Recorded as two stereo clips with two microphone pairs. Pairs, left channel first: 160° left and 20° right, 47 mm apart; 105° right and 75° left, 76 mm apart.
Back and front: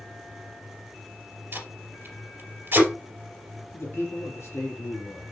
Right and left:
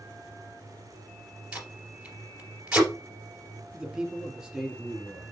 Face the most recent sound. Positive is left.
turn(degrees=155)